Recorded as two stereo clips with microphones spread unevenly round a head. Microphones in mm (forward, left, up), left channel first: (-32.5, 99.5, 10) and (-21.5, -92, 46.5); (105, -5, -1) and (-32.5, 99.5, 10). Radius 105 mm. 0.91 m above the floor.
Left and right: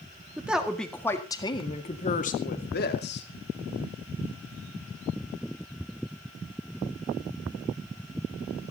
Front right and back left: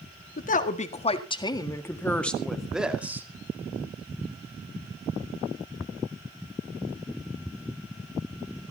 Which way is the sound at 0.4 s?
Straight ahead.